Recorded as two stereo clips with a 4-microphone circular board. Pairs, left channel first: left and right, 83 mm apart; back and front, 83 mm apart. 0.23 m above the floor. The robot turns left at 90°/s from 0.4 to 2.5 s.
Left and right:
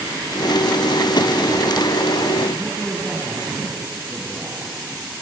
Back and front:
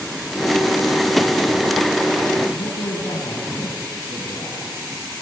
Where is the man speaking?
Straight behind, 7 m.